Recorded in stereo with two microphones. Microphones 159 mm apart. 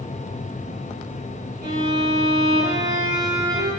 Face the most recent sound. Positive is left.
turn(degrees=-75)  # may be behind; listen again after turning